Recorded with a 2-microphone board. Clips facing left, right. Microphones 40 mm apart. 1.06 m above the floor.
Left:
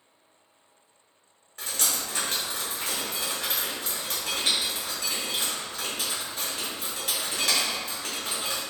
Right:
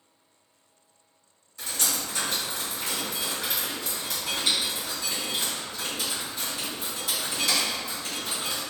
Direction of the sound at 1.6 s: 55° left (ahead or behind).